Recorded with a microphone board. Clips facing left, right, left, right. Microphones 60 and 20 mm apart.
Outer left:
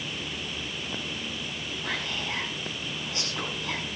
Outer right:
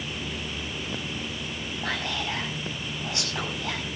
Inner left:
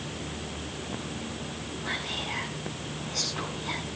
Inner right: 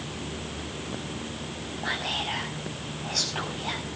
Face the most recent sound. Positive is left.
turn(degrees=-80)